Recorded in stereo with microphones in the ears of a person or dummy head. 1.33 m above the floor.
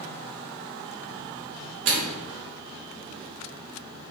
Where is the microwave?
45° right (ahead or behind), 0.6 m.